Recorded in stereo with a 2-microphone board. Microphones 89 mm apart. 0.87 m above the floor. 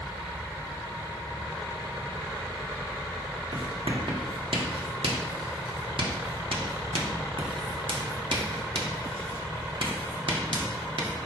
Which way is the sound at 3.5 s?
75° right (ahead or behind).